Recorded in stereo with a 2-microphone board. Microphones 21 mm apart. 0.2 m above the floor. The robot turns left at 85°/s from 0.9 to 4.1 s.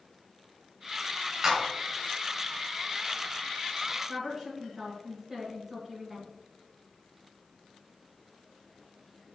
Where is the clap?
30° right (ahead or behind), 1.5 m; by 1.7 s 45° right (ahead or behind), 1.5 m.